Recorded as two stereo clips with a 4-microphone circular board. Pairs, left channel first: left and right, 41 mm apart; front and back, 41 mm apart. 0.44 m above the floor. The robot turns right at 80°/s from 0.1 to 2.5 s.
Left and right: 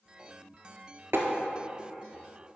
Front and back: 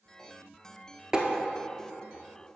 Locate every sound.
1.1 s tapping: 110° right, 1.2 m; by 1.2 s 100° right, 1.2 m